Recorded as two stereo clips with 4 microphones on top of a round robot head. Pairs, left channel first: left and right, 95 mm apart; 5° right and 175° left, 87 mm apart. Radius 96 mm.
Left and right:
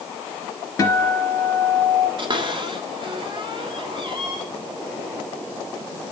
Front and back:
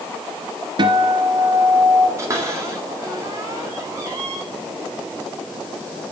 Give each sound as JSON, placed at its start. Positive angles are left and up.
{"t": 0.8, "sound": "a guitar", "azimuth_deg": 145, "distance_m": 3.5}
{"t": 2.2, "sound": "a cupboard door", "azimuth_deg": -125, "distance_m": 3.5}